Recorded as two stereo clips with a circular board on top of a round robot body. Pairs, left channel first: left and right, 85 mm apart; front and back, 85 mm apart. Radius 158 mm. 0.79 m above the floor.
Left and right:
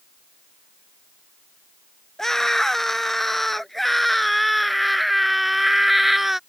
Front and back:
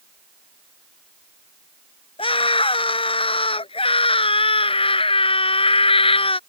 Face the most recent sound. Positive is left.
turn(degrees=-5)